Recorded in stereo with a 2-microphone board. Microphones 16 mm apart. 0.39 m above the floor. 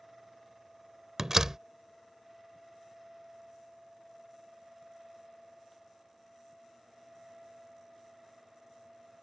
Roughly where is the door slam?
Right.